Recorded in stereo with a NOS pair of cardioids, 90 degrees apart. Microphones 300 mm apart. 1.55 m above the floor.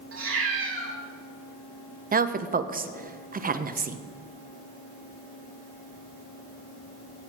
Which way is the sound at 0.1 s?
45° right.